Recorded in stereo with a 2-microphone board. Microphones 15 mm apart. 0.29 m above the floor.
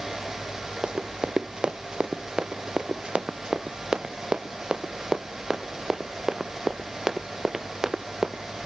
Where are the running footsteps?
75° right (ahead or behind); by 8.4 s 30° right (ahead or behind).